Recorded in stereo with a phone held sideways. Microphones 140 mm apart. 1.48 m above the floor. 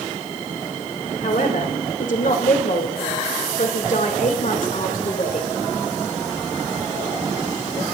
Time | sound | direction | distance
1.2 | a man speaking | 70° left (ahead or behind) | 2.5 m